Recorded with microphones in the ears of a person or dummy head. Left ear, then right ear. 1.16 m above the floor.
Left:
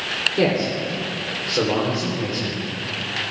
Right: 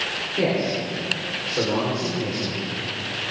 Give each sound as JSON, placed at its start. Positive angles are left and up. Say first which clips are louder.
{"t": 0.4, "sound": "a man speaking", "louder": "left 2 dB", "side_deg": 45, "distance_m": 3.5}